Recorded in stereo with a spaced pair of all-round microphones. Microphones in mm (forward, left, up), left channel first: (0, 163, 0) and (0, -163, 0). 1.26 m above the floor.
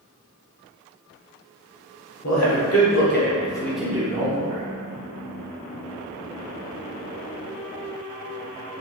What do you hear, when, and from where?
2.2 s a man speaking: 60° left (ahead or behind), 1.0 m; by 4.6 s 35° right (ahead or behind), 0.8 m